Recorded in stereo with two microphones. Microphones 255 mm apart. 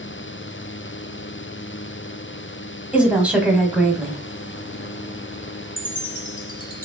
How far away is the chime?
About 0.9 m.